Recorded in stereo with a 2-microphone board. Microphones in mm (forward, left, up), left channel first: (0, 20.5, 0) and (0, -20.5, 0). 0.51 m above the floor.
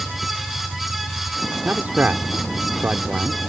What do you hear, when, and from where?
0.0 s a vehicle: 5° left (ahead or behind); by 3.5 s 25° left (ahead or behind)
1.6 s a man speaking: 45° right (ahead or behind)